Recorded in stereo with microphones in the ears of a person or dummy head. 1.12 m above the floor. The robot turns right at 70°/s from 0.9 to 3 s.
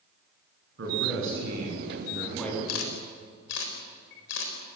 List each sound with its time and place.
0.8 s a man speaking: 105° right, 10 m; by 2.6 s 15° left, 10 m
2.7 s a camera shutter: 90° left, 4 m; by 4.5 s 70° left (ahead or behind), 4 m